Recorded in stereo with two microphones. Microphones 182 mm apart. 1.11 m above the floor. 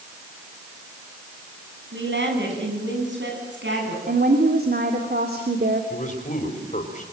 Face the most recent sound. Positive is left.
turn(degrees=45)  # may be behind; listen again after turning